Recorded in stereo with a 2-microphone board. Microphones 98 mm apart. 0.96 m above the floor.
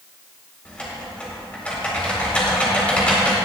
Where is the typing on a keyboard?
15° left (ahead or behind), 3.5 m.